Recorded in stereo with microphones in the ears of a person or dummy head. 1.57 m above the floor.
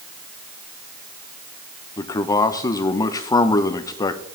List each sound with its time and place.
2.0 s a man speaking: 20° left (ahead or behind), 0.9 m